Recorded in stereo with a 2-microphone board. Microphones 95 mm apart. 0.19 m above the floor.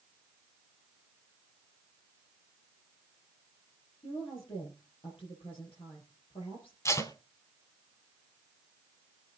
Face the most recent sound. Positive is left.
turn(degrees=30)  # may be behind; listen again after turning